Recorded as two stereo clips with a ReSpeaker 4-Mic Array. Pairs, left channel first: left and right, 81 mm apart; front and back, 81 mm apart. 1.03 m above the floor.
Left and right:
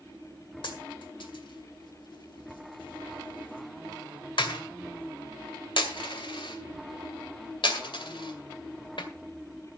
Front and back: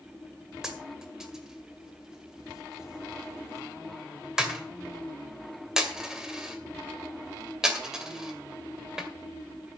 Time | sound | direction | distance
0.6 | a dropped coin | 95° left | 2.0 m